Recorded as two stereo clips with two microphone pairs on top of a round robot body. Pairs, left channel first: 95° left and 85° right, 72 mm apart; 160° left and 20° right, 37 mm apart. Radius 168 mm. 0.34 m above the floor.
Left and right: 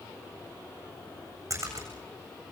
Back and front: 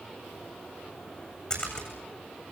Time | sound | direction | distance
1.5 | a splash | 130° right | 8 m